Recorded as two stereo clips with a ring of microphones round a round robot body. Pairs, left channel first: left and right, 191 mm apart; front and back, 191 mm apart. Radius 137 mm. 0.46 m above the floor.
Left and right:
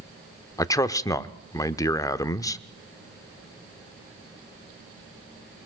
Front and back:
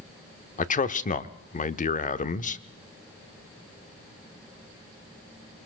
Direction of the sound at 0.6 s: 25° left.